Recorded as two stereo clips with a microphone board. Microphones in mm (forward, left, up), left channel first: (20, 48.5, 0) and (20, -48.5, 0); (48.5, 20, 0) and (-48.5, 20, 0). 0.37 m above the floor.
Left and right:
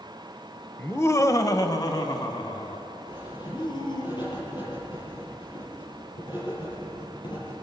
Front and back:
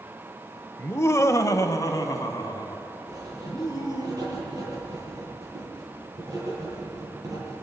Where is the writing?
125° left, 8 m.